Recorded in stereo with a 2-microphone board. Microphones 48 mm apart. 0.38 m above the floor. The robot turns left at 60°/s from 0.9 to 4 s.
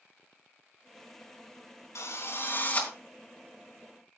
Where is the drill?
85° left, 3 m; by 2.9 s 30° left, 3 m.